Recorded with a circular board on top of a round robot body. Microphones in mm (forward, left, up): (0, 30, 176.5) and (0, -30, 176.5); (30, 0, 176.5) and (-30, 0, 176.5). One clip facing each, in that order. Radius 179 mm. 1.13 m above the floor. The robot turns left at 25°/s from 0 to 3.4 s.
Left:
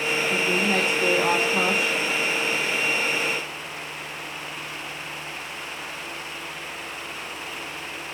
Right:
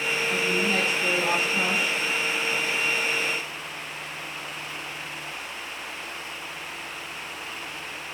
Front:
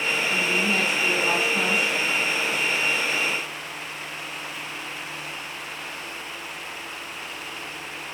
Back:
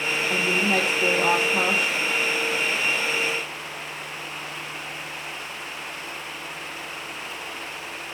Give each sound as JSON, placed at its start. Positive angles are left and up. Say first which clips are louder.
{"t": 0.3, "sound": "a woman speaking", "louder": "left 2 dB, back 3 dB", "azimuth_deg": 165, "distance_m": 1.5}